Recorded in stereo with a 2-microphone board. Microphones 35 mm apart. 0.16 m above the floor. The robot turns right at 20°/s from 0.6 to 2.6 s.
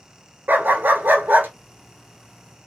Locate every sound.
0.5 s a dog barking: 70° right (ahead or behind), 0.6 m; by 1.5 s 60° right (ahead or behind), 0.6 m